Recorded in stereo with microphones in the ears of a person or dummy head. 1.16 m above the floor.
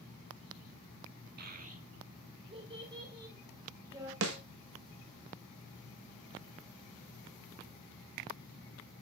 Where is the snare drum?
70° right (ahead or behind), 1.6 m.